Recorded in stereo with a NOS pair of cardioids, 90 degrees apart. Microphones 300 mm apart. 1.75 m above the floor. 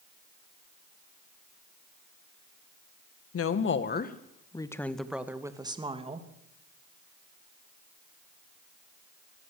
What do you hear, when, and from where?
3.3 s a woman speaking: 50° left, 2 m; by 6.3 s 20° right, 3 m